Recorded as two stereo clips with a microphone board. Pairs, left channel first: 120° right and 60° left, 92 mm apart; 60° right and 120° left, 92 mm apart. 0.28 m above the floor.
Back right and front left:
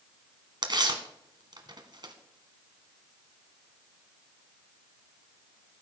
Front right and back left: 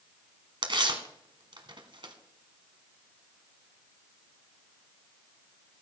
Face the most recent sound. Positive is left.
turn(degrees=95)